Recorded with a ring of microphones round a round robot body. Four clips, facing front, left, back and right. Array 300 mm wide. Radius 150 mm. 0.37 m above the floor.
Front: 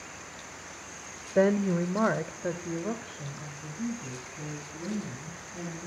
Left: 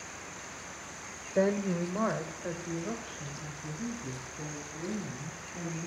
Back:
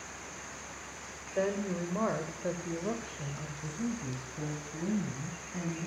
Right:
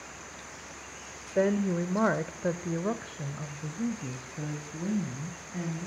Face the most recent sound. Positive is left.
turn(degrees=-115)